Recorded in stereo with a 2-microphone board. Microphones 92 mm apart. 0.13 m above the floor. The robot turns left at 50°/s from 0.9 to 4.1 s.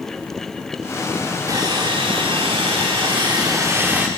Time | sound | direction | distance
1.5 | sawing | 40° right | 4.5 m